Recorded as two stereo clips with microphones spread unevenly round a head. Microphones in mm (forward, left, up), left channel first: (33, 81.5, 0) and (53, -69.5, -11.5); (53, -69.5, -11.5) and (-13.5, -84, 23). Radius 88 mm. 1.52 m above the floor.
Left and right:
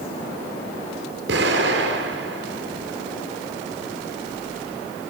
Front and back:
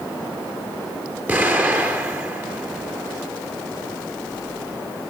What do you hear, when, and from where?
1.3 s an explosion: 115° right, 7.5 m